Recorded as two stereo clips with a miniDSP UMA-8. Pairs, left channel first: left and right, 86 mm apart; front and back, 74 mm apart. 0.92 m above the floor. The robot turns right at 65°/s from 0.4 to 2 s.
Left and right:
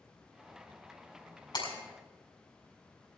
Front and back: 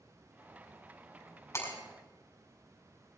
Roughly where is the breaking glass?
Ahead left.